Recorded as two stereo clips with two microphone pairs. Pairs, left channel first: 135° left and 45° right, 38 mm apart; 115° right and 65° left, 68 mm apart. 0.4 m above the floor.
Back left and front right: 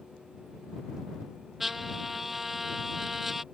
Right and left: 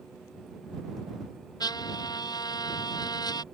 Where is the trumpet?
125° right.